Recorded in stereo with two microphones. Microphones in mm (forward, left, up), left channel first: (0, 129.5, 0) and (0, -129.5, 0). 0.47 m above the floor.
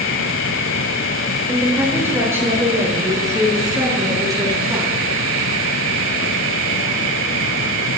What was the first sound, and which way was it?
A woman speaking, 10° right (ahead or behind).